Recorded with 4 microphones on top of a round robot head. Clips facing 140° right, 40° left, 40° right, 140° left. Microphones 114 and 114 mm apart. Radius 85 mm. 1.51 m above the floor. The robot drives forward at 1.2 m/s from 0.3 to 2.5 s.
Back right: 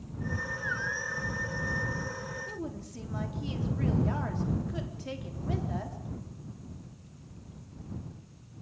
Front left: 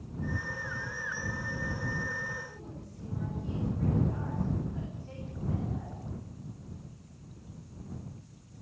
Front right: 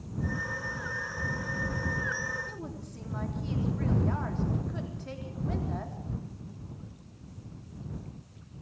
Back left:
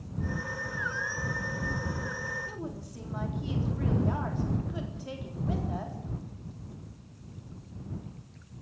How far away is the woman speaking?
About 3.5 m.